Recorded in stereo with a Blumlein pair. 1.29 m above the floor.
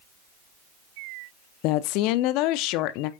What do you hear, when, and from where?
1.6 s a woman speaking: 40° left, 0.6 m